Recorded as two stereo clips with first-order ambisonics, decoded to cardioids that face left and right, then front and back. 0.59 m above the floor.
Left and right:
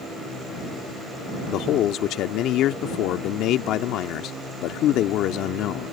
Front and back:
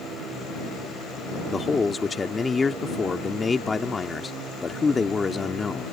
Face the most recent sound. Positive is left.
turn(degrees=70)